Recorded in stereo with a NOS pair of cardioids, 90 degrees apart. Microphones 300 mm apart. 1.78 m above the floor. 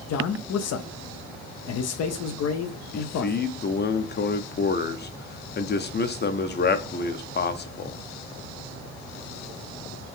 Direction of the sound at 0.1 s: 55° left.